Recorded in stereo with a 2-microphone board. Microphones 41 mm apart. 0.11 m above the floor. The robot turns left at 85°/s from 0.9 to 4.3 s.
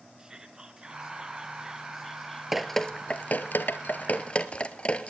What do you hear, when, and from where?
0.2 s whispering: 20° right (ahead or behind), 1.3 m; by 2.8 s 15° left (ahead or behind), 1.3 m
2.5 s dripping: 10° right (ahead or behind), 0.8 m; by 5.1 s 30° left (ahead or behind), 0.8 m